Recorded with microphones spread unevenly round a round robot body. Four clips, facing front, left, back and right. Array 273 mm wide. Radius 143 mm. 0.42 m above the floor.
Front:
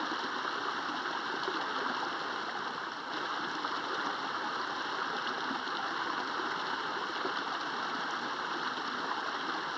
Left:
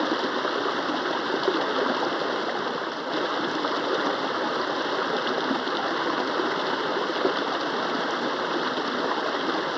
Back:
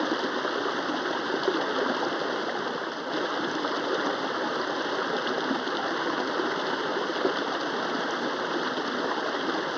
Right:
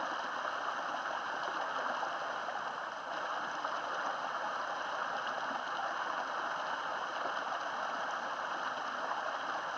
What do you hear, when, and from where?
0.0 s running water: 125° left